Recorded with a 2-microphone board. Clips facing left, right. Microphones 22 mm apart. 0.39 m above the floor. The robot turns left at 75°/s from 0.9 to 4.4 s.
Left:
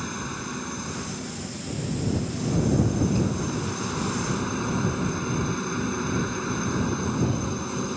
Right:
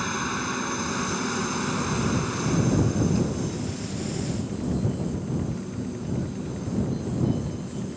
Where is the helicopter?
20° right; by 8.0 s 75° left.